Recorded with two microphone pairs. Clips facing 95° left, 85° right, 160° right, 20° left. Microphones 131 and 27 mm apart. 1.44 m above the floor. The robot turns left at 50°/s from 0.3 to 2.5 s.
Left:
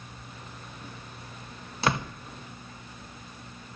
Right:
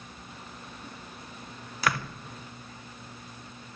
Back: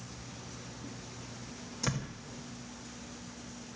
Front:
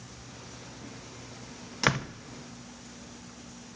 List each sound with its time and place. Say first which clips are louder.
1.8 s a door slam: left 2 dB, front 10 dB; 35° left, 0.7 m; by 2.1 s 20° left, 0.7 m